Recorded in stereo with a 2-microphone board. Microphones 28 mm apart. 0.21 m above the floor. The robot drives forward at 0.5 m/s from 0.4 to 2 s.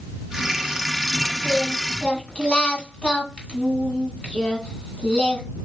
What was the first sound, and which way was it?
Singing, 35° left (ahead or behind).